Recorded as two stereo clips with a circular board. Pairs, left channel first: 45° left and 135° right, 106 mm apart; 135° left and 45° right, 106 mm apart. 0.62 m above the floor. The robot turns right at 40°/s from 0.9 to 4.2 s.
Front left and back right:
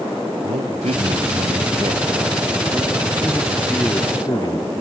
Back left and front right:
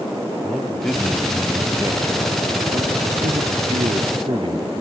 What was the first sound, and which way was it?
A man speaking, 140° right.